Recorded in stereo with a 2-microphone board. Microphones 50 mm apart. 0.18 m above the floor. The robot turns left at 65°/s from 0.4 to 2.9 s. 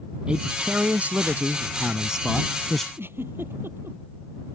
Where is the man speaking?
40° right; by 2.9 s 160° left.